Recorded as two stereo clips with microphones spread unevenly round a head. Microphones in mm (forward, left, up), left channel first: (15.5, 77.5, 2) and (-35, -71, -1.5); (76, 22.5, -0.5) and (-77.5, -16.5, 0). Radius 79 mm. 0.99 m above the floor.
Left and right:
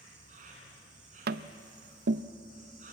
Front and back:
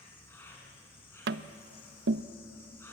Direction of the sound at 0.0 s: 60° right.